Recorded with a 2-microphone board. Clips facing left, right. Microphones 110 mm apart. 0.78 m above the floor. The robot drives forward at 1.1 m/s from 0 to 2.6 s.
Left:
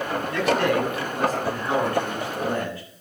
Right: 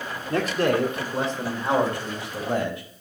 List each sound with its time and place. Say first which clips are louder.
0.3 s a man speaking: even; 45° right (ahead or behind), 1.8 m; by 2.8 s 20° right (ahead or behind), 4 m